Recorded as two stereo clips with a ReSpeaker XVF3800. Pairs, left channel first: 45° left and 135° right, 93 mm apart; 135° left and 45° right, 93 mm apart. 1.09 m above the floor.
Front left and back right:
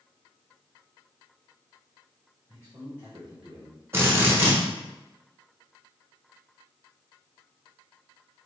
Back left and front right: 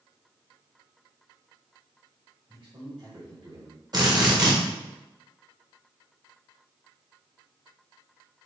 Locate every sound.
2.5 s a man speaking: 75° right, 2 m; by 3.8 s 30° right, 1.0 m
3.9 s a drill: 75° right, 1.3 m